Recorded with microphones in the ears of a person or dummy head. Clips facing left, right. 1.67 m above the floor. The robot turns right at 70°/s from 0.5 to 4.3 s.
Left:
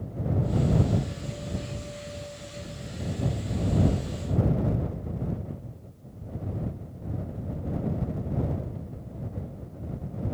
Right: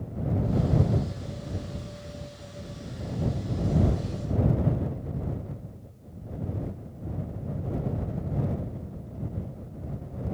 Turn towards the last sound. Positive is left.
No sound to turn to.